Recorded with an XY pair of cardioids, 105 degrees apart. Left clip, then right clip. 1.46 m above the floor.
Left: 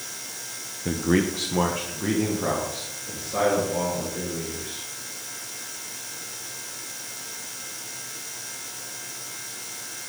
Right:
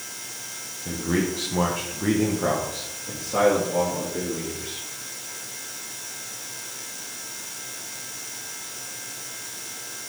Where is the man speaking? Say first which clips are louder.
Left 2 dB; 50° left, 0.9 m; by 4.9 s 35° right, 4 m.